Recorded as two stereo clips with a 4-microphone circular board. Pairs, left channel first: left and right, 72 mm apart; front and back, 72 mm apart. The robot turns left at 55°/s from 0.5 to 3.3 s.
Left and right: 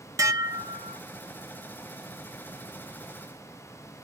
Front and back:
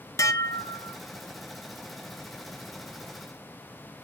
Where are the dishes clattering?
45° right, 0.7 m; by 1.0 s 75° right, 0.7 m.